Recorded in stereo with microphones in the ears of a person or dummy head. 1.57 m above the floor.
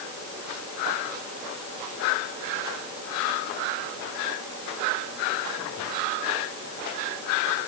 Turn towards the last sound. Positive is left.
No sound to turn to.